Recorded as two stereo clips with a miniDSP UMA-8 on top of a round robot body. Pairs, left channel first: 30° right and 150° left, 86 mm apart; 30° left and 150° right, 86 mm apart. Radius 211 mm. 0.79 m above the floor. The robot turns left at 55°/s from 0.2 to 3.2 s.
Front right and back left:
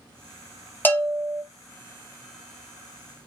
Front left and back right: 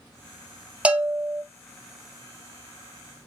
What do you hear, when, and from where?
0.8 s a bell: 80° right, 1.0 m; by 1.4 s 110° right, 1.0 m